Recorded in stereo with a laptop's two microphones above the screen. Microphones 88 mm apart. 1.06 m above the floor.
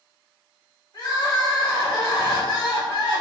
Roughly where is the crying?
Left.